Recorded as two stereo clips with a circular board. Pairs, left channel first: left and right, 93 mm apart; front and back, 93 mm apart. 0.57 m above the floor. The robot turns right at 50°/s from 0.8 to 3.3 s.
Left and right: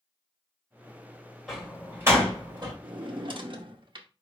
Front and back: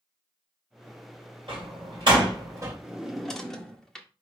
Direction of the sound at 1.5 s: Straight behind.